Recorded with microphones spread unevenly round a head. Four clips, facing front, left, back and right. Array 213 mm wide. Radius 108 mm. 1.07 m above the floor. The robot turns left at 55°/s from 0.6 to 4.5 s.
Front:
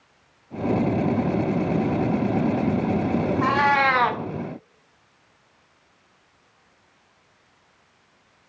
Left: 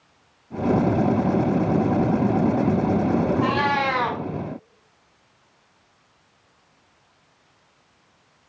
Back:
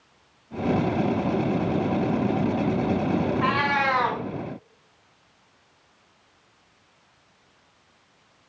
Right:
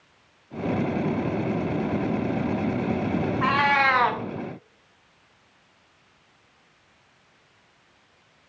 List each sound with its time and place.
3.4 s a cat meowing: 15° left, 0.6 m; by 4.2 s 30° right, 0.6 m